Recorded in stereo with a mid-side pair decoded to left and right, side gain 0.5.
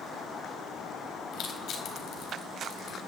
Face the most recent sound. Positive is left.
turn(degrees=60)